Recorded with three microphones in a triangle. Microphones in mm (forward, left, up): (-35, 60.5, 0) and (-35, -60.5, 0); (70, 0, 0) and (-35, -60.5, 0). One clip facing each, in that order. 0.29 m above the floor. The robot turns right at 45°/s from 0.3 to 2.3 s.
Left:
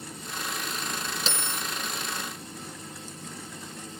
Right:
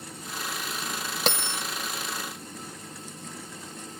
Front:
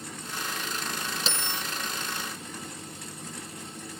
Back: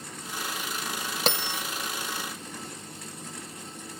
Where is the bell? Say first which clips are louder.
Right 8 dB, back 8 dB; 120° right, 0.5 m; by 1.6 s 105° right, 0.5 m.